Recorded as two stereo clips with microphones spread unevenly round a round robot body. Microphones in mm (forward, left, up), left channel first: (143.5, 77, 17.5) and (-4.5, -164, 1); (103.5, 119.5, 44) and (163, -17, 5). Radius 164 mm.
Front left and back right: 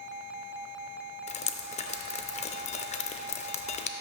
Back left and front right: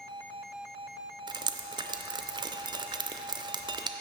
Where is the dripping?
Straight ahead, 0.5 m.